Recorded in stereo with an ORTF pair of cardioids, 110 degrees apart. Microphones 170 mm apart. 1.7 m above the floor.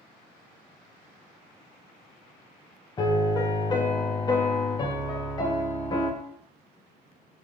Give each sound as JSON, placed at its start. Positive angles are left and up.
{"t": 3.0, "sound": "a piano", "azimuth_deg": 25, "distance_m": 0.6}